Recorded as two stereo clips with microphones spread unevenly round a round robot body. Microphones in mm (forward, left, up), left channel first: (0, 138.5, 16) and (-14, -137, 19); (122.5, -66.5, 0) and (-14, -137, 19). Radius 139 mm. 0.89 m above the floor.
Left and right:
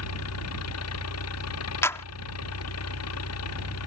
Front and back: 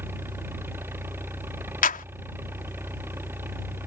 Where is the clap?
5° left.